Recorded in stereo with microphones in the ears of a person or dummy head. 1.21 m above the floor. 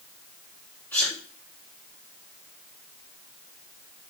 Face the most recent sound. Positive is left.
turn(degrees=20)  # may be behind; listen again after turning